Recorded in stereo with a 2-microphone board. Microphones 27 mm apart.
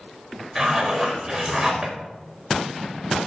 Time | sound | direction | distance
0.6 | a zipper | 10° right (ahead or behind) | 4.5 m